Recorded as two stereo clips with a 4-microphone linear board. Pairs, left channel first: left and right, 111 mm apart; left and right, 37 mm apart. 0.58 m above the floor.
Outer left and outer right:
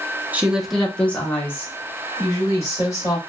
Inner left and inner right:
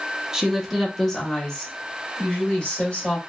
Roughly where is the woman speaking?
Centre.